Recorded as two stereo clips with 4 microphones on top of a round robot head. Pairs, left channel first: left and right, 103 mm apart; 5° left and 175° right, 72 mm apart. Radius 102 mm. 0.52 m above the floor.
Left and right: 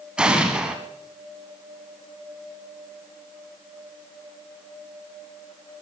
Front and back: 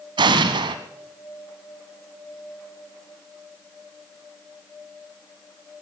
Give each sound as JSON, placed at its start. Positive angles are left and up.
{"t": 0.2, "sound": "an explosion", "azimuth_deg": -170, "distance_m": 1.2}